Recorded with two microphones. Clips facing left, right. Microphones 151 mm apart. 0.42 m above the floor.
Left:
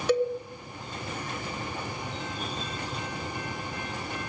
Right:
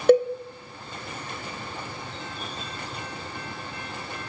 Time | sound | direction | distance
0.1 | a cowbell | 55° right (ahead or behind) | 0.7 m